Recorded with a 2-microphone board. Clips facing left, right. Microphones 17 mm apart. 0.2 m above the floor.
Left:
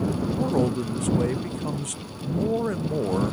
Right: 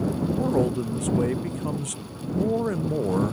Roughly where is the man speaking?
Centre.